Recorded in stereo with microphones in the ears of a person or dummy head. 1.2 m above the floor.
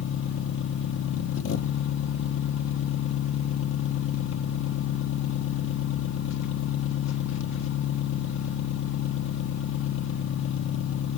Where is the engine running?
70° left (ahead or behind), 1.1 m.